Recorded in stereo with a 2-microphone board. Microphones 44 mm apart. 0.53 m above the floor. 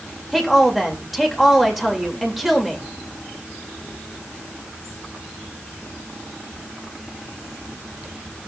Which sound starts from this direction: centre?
A woman speaking, at 0.3 s.